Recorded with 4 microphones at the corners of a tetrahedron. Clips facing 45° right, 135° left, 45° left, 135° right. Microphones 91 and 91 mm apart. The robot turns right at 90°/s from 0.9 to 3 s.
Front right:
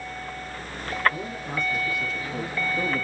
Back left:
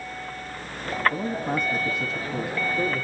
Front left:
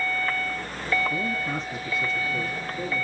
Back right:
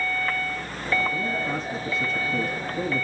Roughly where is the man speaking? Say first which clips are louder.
Back left 5 dB, back right 1 dB; left.